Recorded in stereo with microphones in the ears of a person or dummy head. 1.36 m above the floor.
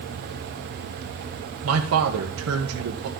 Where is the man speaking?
75° right (ahead or behind), 1.1 m.